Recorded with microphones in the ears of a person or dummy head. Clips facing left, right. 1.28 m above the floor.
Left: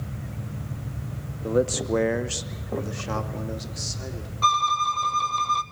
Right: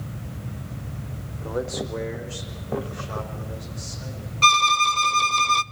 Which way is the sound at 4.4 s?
35° right (ahead or behind).